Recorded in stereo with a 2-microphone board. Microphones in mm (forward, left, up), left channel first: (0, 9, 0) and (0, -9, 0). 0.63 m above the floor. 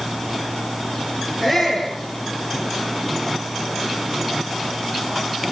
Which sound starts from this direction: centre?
A shout, at 1.4 s.